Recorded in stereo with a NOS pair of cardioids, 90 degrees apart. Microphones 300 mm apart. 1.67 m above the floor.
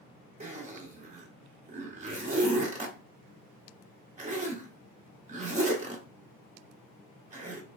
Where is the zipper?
25° right, 0.9 m.